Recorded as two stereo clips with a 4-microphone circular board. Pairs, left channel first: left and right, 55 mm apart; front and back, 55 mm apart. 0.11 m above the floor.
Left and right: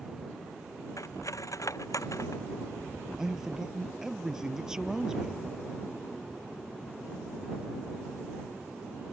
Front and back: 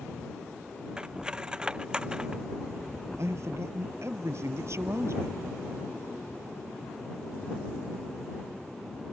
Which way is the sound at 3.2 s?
170° right.